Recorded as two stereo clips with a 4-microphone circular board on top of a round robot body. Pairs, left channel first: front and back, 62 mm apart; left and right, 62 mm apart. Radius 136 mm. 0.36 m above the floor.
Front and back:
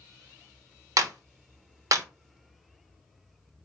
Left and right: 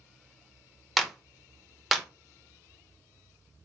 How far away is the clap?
About 1.1 m.